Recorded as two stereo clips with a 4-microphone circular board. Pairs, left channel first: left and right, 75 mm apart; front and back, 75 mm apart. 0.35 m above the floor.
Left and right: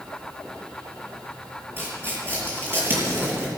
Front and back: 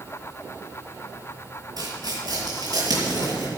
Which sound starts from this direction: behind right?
Tearing paper, at 1.8 s.